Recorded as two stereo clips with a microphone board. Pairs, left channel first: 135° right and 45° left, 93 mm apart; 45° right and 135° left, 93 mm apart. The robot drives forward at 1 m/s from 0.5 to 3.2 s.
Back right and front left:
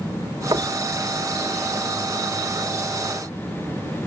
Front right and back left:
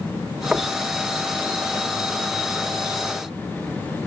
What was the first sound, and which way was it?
Knocking, 60° left.